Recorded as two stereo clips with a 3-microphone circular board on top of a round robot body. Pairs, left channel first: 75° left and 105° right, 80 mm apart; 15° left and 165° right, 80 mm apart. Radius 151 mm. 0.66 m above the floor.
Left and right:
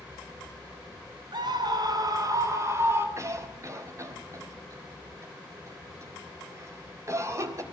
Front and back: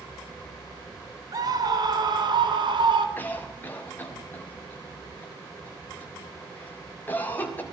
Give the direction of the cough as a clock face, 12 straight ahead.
2 o'clock.